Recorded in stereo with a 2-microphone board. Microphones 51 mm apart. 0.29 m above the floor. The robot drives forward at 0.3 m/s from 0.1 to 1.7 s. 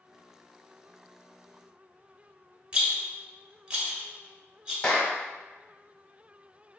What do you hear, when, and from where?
2.7 s a rattle: 20° right (ahead or behind), 1.2 m
4.8 s a clap: 30° left (ahead or behind), 1.0 m